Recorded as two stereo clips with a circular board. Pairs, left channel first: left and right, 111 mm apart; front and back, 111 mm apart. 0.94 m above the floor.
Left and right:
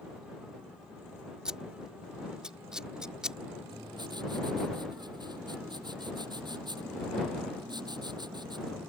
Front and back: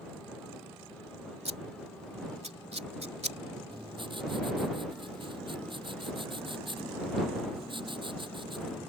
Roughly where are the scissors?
Behind.